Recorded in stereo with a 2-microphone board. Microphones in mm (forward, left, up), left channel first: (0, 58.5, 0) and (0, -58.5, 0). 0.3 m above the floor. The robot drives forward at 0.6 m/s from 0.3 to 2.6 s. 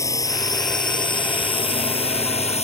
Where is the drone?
25° left (ahead or behind); by 2.6 s 60° left (ahead or behind).